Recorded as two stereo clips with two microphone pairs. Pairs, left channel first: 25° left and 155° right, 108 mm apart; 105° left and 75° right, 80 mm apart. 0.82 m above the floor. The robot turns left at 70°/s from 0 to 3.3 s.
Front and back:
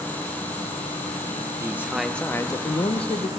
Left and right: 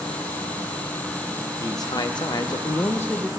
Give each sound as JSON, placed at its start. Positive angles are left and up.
{"t": 0.0, "sound": "an insect", "azimuth_deg": 115, "distance_m": 2.5}
{"t": 1.6, "sound": "a man speaking", "azimuth_deg": 145, "distance_m": 0.7}